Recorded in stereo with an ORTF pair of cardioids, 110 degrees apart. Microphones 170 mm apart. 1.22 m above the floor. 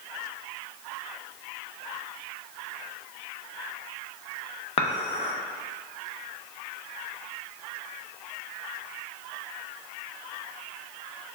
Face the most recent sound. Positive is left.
turn(degrees=40)